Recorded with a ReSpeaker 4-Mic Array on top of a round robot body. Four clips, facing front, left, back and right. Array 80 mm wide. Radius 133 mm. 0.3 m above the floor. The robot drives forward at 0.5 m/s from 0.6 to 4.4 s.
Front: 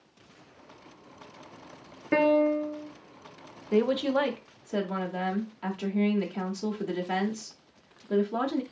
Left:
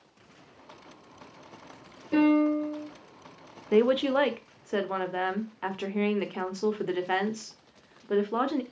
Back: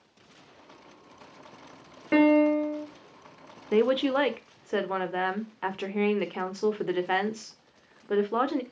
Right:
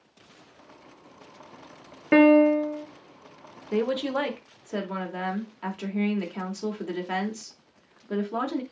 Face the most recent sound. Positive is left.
turn(degrees=160)